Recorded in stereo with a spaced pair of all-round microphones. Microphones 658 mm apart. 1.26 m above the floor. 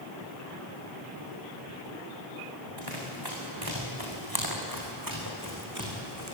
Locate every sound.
2.8 s running footsteps: 35° right (ahead or behind), 6.5 m; by 6.3 s 25° right (ahead or behind), 5 m